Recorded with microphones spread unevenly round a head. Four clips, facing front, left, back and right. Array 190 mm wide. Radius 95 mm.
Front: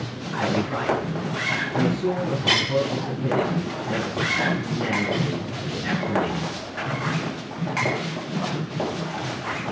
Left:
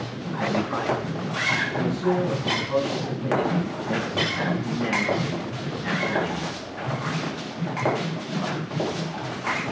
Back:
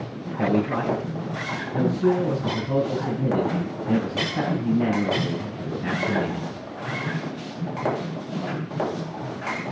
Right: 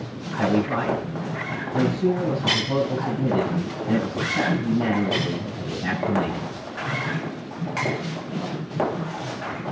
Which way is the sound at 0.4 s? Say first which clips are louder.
Right 4 dB, back 2 dB; 130° right.